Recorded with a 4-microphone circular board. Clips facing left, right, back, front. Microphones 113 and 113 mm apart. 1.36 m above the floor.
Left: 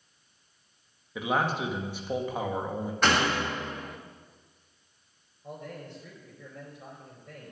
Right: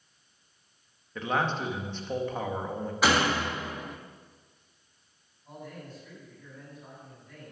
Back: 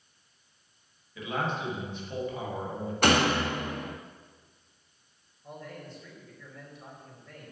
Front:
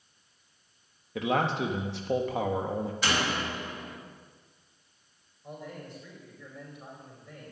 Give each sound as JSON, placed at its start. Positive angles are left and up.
{"t": 1.1, "sound": "a man speaking", "azimuth_deg": 10, "distance_m": 1.7}
{"t": 3.0, "sound": "a door slam", "azimuth_deg": -175, "distance_m": 1.1}
{"t": 5.4, "sound": "a man speaking", "azimuth_deg": 75, "distance_m": 5.0}